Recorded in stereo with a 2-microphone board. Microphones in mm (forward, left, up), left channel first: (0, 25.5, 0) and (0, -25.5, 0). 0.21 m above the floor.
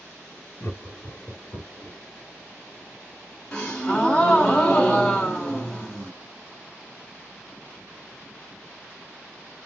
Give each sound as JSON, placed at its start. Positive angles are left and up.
{"t": 0.6, "sound": "laughter", "side_deg": 20, "distance_m": 1.5}
{"t": 3.5, "sound": "a gasp", "side_deg": 10, "distance_m": 1.2}